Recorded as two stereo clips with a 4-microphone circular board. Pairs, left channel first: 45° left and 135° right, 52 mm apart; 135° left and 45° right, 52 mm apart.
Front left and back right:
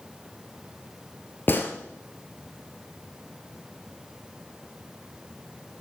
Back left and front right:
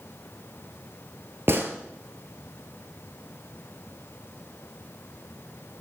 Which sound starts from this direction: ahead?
A gunshot, at 1.5 s.